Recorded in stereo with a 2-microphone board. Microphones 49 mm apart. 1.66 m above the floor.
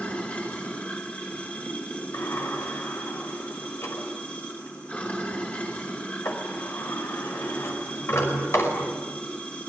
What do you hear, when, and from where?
0.0 s running water: 30° left (ahead or behind), 5 m
2.1 s a sliding door: 60° left (ahead or behind), 5 m